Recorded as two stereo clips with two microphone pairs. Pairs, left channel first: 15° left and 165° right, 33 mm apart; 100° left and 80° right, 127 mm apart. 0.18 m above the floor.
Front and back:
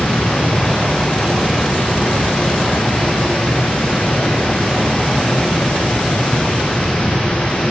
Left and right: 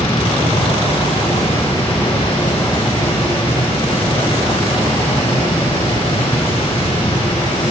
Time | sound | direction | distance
0.0 | running water | 55° left | 3 m